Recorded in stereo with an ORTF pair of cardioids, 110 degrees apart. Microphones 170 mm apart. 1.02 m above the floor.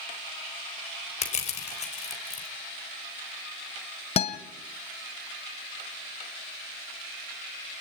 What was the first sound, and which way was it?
Crushing, 45° left.